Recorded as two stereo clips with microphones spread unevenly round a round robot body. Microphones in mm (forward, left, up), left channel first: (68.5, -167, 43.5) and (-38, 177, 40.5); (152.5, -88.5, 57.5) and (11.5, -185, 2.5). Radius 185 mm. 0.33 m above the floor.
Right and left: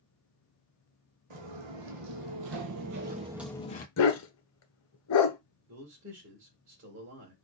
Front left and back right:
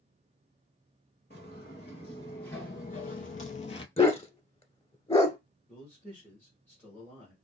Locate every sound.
1.3 s footsteps: 95° left, 1.3 m; by 3.9 s 10° right, 0.6 m
4.0 s a dog barking: 25° right, 1.1 m
5.7 s a man speaking: 135° left, 1.4 m